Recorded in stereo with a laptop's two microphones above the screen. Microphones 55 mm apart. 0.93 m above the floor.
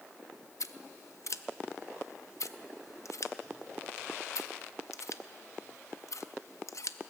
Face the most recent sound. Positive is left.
turn(degrees=70)  # may be behind; listen again after turning